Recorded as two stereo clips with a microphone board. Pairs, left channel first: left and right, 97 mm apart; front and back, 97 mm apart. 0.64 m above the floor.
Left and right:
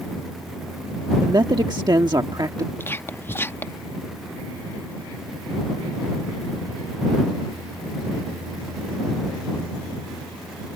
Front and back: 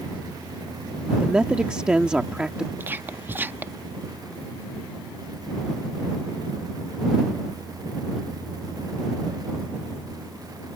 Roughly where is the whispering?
Behind left.